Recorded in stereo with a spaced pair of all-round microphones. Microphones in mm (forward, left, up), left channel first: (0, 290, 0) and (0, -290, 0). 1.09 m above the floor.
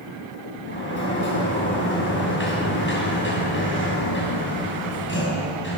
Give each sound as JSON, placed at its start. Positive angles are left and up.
{"t": 0.7, "sound": "a sliding door", "side_deg": 20, "distance_m": 6.0}